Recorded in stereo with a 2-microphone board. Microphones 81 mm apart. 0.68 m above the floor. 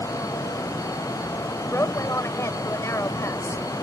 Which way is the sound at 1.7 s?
40° left (ahead or behind).